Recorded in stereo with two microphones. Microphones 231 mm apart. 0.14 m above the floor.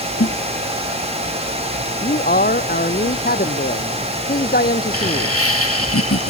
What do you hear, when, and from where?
0.2 s a snare drum: 55° left (ahead or behind)
2.0 s a man speaking: 40° left (ahead or behind)
4.9 s laughter: 80° left